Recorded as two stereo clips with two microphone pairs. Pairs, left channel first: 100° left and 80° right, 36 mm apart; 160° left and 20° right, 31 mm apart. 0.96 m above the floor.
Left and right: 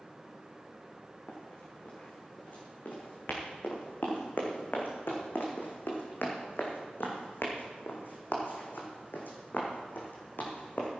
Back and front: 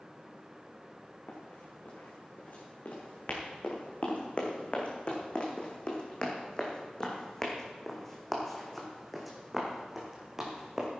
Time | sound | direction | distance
1.3 | running footsteps | 135° left | 4.5 m